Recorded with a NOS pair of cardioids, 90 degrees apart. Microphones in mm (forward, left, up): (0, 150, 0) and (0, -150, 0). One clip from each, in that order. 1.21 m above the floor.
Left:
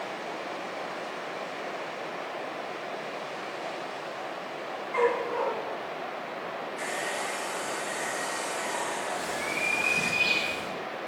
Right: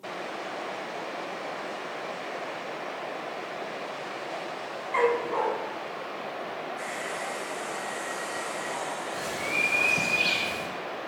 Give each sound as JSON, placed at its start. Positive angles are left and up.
{"t": 4.9, "sound": "a dog barking", "azimuth_deg": -35, "distance_m": 3.5}
{"t": 6.8, "sound": "a hair dryer", "azimuth_deg": 25, "distance_m": 1.1}
{"t": 9.1, "sound": "a bird", "azimuth_deg": -35, "distance_m": 5.5}